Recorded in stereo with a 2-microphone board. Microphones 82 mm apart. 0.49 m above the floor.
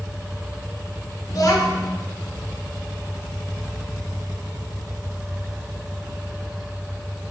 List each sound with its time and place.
1.3 s a child speaking: 50° left (ahead or behind), 0.8 m